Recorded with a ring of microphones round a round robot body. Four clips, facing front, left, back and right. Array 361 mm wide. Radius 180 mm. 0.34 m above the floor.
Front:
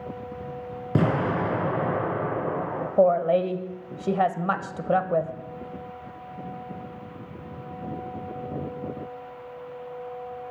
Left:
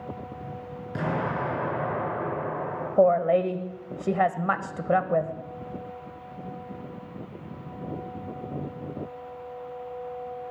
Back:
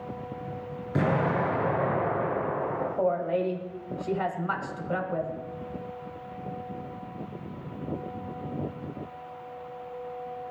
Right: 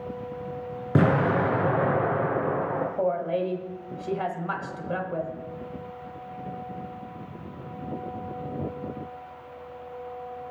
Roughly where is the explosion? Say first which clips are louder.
Right 7 dB, front 2 dB; ahead right.